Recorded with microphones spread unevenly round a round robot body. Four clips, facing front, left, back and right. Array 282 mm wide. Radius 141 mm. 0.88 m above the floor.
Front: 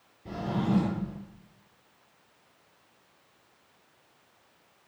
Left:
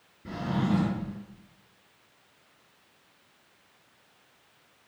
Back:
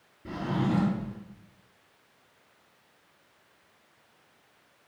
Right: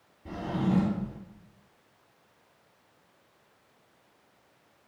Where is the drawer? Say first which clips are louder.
Left 1 dB, back 1 dB; 135° left, 3 m.